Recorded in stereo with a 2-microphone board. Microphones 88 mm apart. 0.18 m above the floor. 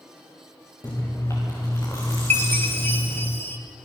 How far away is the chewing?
About 6.5 m.